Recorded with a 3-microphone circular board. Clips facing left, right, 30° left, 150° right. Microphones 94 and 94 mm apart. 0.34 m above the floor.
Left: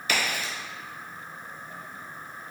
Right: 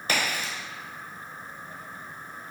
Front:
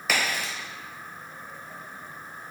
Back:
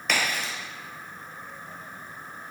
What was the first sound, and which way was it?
A crack, 55° right.